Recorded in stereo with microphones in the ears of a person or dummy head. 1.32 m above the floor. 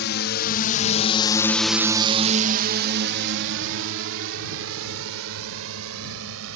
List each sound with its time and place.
0.0 s a drone: 60° left (ahead or behind); by 6.6 s 80° right